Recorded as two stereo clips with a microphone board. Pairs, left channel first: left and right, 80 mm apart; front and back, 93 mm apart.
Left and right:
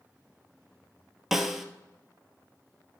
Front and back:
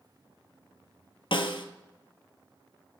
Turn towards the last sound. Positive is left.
turn(degrees=-5)